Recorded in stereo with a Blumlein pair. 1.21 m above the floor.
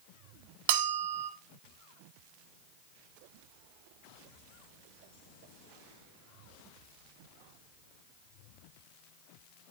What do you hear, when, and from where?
0.7 s a bell: 50° right, 1.0 m